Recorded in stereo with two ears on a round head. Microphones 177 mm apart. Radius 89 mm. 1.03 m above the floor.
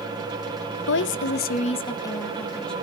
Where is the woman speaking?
55° left (ahead or behind), 1.1 m; by 2.7 s 5° left (ahead or behind), 2.5 m.